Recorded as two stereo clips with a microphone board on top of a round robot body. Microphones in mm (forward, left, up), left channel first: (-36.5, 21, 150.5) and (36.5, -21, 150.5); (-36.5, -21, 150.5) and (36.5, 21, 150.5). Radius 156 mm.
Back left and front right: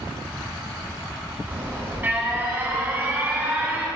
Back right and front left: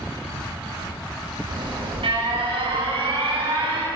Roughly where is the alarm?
Ahead left.